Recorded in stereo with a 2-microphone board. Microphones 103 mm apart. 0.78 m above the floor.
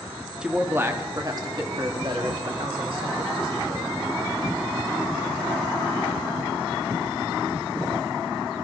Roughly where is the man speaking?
Centre.